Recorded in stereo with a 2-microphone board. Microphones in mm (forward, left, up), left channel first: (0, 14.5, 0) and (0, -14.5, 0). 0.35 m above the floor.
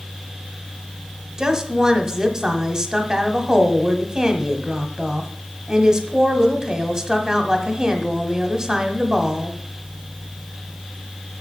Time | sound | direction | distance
1.4 | a woman speaking | 25° right (ahead or behind) | 1.0 m